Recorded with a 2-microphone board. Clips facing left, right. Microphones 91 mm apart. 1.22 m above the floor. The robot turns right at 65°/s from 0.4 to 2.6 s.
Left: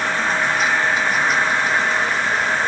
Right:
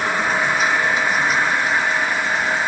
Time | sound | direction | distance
0.0 | an insect | 50° right | 3 m